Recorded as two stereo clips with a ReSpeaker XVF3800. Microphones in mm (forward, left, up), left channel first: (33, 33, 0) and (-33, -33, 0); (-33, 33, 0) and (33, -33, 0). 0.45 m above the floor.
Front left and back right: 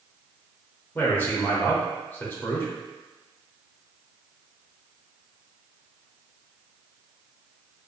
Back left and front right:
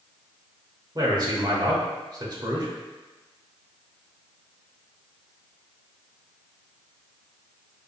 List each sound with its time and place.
0.9 s a man speaking: 15° right, 1.1 m